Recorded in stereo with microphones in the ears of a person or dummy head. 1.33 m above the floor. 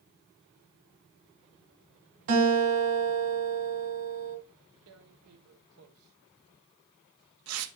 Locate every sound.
2.3 s a guitar: 65° right (ahead or behind), 2.5 m
4.9 s tearing paper: 85° right, 0.7 m